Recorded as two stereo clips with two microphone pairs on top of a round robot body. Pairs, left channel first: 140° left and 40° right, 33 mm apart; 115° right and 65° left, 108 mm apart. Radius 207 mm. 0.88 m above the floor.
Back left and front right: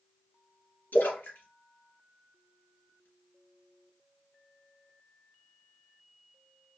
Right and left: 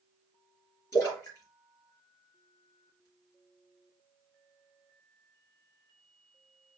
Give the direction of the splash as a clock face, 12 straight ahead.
6 o'clock.